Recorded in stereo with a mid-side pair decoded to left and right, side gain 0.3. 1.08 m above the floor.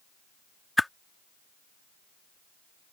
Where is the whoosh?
20° left.